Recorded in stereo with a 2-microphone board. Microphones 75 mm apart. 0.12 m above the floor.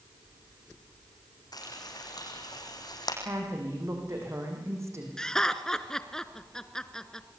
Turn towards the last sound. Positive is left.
turn(degrees=10)  # may be behind; listen again after turning